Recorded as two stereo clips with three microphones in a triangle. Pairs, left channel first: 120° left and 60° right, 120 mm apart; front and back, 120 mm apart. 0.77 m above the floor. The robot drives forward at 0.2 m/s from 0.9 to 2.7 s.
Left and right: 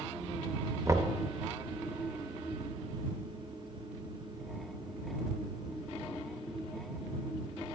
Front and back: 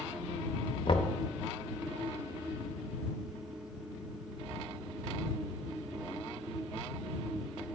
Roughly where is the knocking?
Ahead.